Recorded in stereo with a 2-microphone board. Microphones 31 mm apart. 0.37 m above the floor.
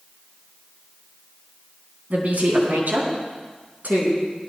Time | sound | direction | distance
2.1 | a woman speaking | 65° right (ahead or behind) | 3 m